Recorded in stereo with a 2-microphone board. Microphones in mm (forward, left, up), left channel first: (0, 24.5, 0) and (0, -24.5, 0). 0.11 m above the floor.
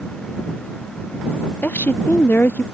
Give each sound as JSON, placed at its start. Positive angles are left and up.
{"t": 1.6, "sound": "a woman speaking", "side_deg": 45}